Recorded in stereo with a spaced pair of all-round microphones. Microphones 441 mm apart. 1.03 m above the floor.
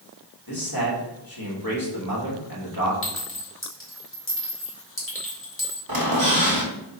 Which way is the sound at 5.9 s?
55° right (ahead or behind).